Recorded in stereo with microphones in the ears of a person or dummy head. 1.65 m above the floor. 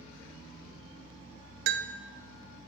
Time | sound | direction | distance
1.7 | a bell | 60° right (ahead or behind) | 0.6 m